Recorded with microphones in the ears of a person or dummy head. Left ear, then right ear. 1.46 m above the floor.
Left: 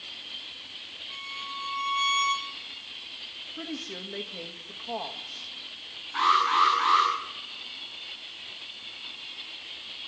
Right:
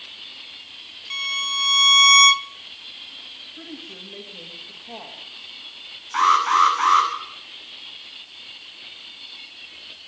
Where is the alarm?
60° right (ahead or behind), 9 m.